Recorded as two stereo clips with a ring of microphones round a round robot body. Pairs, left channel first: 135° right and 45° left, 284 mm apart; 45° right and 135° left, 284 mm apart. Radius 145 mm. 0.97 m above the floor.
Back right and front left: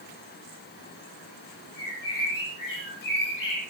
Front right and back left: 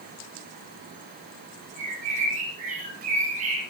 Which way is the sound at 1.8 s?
160° right.